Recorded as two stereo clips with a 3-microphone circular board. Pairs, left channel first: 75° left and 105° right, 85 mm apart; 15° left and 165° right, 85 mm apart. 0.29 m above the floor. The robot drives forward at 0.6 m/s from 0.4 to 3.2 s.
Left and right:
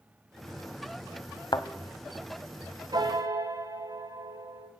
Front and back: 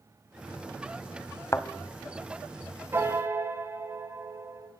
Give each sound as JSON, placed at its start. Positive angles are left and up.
{"t": 1.5, "sound": "a thud", "azimuth_deg": 65, "distance_m": 0.6}
{"t": 2.9, "sound": "a piano", "azimuth_deg": -110, "distance_m": 1.2}